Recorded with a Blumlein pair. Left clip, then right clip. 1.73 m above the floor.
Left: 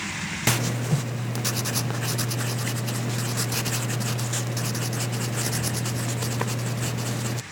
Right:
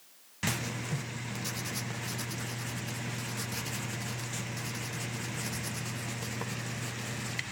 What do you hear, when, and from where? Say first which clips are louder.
0.5 s writing: left 9 dB; 60° left, 0.5 m